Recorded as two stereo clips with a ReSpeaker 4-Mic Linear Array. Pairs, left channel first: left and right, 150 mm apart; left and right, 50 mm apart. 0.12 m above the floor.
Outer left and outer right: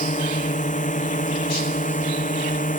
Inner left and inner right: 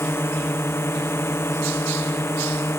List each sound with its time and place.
0.0 s a drone: 55° left (ahead or behind); by 2.8 s 60° left (ahead or behind)